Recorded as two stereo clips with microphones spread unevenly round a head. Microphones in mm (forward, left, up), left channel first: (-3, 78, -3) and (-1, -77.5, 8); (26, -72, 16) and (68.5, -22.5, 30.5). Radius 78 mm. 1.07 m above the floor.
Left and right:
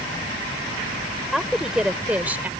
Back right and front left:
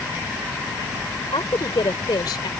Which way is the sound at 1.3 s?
175° right.